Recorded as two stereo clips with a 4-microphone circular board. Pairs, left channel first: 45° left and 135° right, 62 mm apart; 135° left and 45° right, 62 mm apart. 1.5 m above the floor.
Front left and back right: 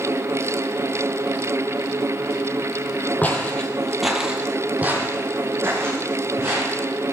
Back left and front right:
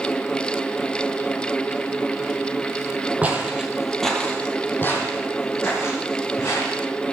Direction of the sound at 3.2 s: 5° left.